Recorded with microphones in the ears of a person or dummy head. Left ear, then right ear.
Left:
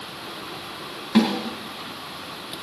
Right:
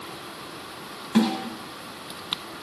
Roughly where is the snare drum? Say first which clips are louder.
Left 3 dB; centre.